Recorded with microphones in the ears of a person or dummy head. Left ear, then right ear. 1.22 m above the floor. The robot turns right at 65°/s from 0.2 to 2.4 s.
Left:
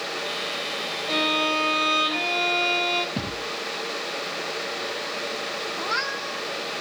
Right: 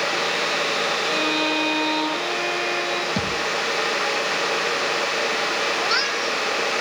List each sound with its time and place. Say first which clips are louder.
1.1 s a violin: right 1 dB; 60° left, 5.5 m; by 3.1 s 145° left, 5.5 m
3.2 s a thud: right 7 dB; 55° right (ahead or behind), 4 m
5.8 s a cat meowing: right 5 dB; 25° right (ahead or behind), 1.4 m